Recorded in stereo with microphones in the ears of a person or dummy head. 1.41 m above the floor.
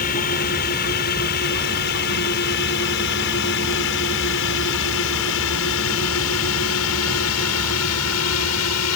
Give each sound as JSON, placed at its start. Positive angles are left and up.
{"t": 0.0, "sound": "a drone", "side_deg": 45}